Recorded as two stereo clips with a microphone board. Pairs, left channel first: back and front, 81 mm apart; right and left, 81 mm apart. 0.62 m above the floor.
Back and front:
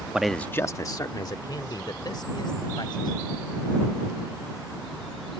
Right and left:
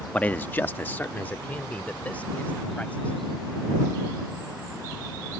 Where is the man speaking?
50° right; by 3.2 s 160° right.